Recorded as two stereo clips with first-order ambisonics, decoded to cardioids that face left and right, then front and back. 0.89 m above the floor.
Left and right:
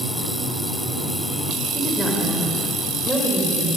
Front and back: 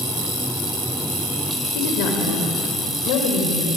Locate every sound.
1.8 s a woman speaking: straight ahead, 3.5 m; by 3.8 s 10° right, 4 m